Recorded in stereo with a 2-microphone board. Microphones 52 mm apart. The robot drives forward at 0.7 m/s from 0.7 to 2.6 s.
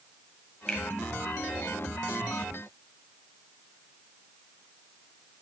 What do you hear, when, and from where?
0.7 s a finger snap: 15° left (ahead or behind), 1.4 m